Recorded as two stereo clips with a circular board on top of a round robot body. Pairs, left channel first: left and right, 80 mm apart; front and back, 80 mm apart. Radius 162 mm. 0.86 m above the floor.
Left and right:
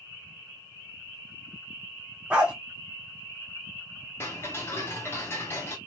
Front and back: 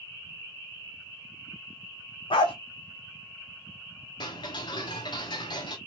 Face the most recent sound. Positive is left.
turn(degrees=30)